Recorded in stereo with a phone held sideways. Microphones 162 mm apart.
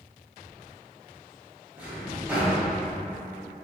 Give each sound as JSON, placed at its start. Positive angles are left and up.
{"t": 1.8, "sound": "a drawer", "side_deg": -10, "distance_m": 0.9}